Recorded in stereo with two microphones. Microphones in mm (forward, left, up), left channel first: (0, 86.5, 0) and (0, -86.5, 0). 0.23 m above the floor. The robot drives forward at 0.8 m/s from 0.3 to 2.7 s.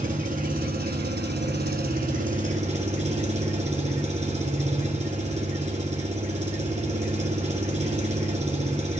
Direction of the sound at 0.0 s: 50° right (ahead or behind).